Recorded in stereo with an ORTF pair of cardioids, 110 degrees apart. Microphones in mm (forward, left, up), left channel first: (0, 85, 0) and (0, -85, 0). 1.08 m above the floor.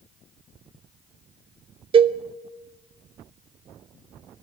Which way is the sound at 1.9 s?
35° right.